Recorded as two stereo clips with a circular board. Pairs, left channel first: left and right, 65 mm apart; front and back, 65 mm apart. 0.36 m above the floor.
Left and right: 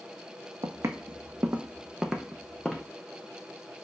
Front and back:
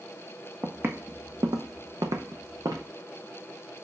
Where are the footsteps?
120° right, 0.8 m; by 2.9 s 170° left, 1.2 m.